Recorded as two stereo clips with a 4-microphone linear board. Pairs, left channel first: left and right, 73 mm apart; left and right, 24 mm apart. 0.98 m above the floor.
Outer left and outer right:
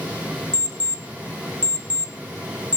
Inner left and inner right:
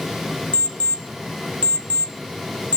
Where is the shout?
I don't hear a shout.